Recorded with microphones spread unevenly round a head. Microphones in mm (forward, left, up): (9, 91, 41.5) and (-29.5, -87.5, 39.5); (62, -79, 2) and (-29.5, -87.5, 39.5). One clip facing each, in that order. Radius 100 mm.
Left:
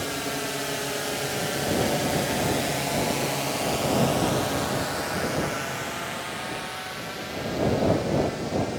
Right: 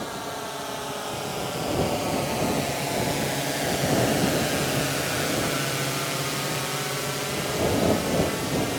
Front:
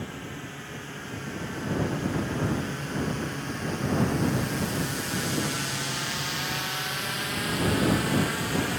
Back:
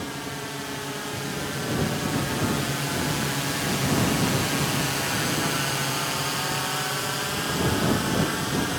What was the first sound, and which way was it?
A drone, 135° left.